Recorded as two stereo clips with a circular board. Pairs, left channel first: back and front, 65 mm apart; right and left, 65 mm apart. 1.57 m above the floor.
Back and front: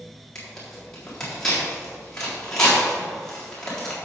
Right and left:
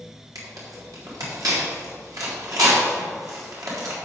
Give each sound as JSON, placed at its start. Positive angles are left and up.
{"t": 0.3, "sound": "tearing paper", "azimuth_deg": 95, "distance_m": 3.5}